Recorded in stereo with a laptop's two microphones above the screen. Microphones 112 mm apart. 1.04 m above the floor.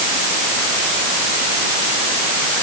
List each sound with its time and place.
Only background noise.